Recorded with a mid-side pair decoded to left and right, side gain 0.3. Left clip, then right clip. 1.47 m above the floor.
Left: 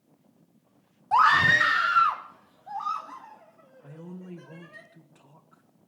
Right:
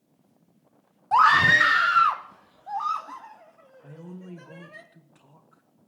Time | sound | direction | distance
1.1 | a scream | 20° right | 0.8 m
3.8 | a man speaking | 20° right | 2 m